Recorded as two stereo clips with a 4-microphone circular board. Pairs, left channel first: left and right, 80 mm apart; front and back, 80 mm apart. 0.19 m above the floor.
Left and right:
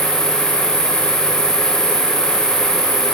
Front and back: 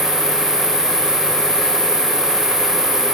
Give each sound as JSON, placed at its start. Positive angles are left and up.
{"t": 0.0, "sound": "an insect", "azimuth_deg": 10, "distance_m": 3.0}